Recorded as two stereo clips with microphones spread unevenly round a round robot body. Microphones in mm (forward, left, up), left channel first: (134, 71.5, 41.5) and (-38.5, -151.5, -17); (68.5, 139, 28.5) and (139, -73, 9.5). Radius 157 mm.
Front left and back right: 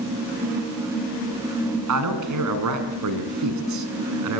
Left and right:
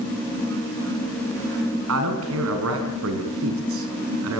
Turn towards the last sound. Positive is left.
turn(degrees=-110)